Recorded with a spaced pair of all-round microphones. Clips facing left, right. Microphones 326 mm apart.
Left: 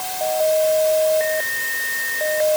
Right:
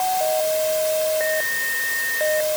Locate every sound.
Only background noise.